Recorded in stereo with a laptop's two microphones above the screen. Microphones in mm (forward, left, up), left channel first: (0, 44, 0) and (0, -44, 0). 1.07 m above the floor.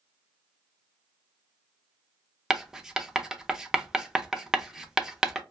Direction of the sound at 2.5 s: 5° right (ahead or behind).